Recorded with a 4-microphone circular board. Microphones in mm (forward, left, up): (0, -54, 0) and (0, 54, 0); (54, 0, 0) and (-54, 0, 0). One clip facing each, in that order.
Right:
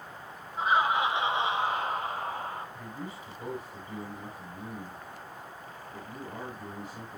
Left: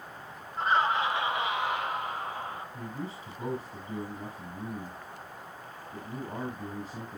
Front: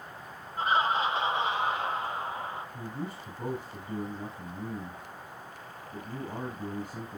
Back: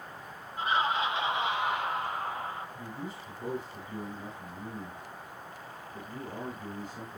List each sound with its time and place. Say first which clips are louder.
0.6 s laughter: right 1 dB, front 2 dB; 5° right, 1.6 m; by 2.6 s 55° right, 3 m
2.7 s a man speaking: left 2 dB, front 2 dB; 25° left, 6 m